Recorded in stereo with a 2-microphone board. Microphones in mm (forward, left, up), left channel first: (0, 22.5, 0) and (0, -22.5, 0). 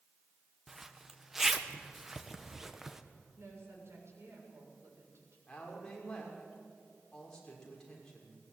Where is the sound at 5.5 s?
15° left (ahead or behind), 6 m.